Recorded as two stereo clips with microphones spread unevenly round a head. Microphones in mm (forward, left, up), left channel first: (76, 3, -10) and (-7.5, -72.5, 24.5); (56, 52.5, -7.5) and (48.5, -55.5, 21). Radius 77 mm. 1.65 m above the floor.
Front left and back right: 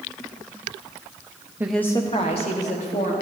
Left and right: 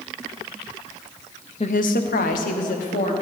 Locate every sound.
1.6 s a woman speaking: 150° left, 0.6 m; by 3.1 s 85° left, 2 m